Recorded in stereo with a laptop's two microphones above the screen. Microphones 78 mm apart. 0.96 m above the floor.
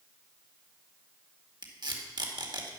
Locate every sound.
1.6 s tape being pulled: 70° right (ahead or behind), 2 m